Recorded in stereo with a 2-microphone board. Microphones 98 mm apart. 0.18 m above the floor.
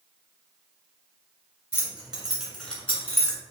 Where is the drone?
No drone in this recording.